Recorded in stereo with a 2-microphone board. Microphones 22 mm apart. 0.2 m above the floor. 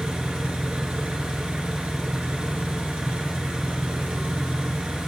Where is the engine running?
60° right (ahead or behind), 2.5 m.